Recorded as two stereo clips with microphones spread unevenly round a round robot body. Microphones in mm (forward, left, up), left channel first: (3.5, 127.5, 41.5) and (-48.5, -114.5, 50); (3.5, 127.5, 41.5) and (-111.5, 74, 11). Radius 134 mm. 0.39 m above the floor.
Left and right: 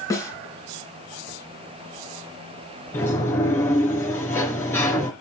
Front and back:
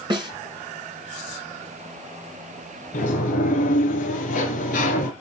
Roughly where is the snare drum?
Behind left.